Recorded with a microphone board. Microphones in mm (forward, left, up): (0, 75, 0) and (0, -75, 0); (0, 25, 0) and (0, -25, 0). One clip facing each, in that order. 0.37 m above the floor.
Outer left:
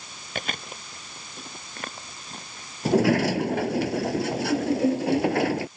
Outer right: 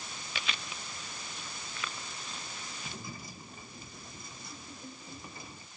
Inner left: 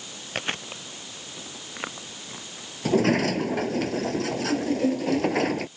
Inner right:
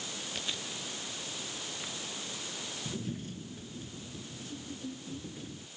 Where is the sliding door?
80° left.